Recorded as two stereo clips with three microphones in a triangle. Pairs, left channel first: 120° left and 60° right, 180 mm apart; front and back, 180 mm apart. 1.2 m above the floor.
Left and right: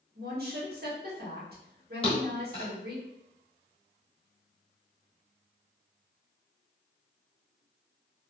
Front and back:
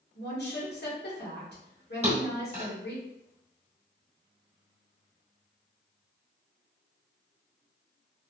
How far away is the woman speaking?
About 1.0 m.